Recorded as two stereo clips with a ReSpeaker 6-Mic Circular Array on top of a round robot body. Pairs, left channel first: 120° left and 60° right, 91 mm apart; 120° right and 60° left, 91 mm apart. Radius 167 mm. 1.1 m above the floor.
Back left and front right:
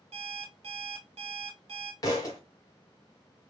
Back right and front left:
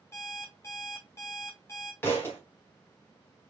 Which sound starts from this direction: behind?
A thud, at 2.0 s.